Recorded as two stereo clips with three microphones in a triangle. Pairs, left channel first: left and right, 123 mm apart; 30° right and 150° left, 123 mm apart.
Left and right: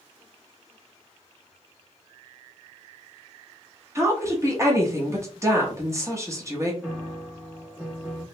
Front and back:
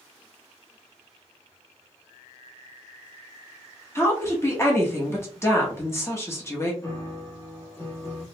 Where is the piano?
20° right, 0.9 m.